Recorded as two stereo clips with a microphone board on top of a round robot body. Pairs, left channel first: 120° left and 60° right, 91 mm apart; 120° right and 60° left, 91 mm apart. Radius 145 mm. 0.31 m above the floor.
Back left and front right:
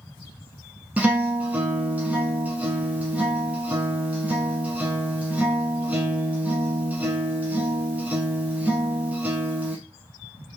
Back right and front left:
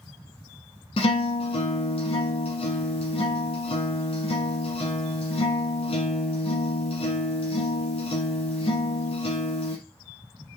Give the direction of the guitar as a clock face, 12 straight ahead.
5 o'clock.